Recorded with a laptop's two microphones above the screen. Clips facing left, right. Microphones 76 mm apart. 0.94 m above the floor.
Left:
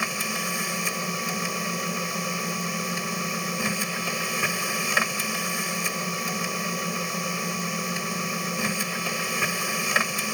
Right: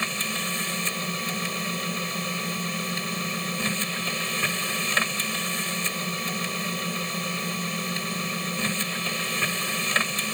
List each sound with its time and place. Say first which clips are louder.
0.0 s a machine running: left 1 dB; 10° left (ahead or behind)